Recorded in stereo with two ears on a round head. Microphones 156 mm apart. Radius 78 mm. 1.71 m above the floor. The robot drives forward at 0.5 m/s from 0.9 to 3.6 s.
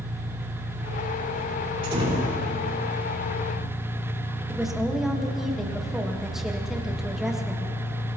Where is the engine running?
35° left (ahead or behind), 1.8 m; by 8.2 s 45° left (ahead or behind), 1.4 m.